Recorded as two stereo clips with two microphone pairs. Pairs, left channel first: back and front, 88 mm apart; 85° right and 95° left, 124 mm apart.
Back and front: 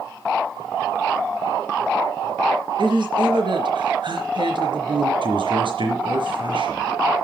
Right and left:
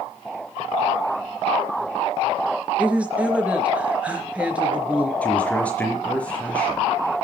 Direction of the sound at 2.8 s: 15° left.